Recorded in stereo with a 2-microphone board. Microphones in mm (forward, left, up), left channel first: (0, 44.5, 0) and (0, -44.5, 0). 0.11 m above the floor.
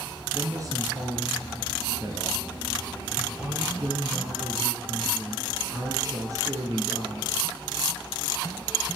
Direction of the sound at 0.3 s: 40° right (ahead or behind).